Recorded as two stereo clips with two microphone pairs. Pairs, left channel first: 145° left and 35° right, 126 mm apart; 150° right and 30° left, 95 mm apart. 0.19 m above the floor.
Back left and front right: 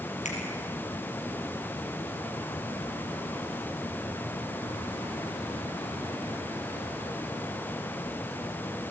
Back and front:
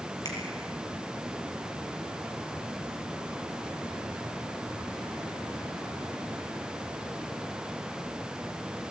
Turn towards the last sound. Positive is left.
turn(degrees=160)